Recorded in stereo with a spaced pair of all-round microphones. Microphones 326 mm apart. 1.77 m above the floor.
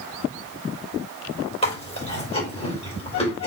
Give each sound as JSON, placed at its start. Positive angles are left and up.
{"t": 1.6, "sound": "chewing", "side_deg": 20, "distance_m": 3.0}